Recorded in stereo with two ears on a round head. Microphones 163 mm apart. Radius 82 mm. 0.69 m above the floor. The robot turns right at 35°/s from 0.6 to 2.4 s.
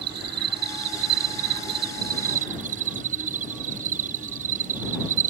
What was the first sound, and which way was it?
An insect, 110° right.